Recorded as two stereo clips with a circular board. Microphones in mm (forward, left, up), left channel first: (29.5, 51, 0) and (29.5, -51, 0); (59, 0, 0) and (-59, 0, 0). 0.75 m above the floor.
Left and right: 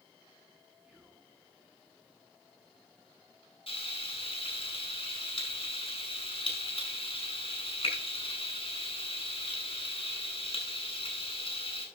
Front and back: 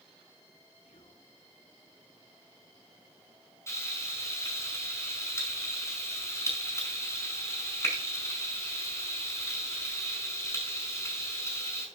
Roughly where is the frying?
Ahead left.